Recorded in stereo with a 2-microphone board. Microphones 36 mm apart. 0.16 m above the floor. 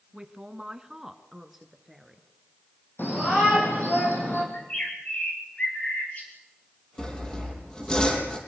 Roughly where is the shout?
Left.